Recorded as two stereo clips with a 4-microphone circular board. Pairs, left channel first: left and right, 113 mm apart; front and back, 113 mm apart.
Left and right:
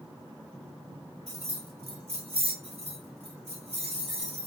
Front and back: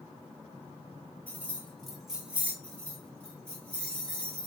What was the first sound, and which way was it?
Keys jangling, 75° right.